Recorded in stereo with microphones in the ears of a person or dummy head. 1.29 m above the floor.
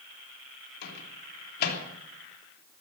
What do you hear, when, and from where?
0.8 s a microwave: 55° left (ahead or behind), 3 m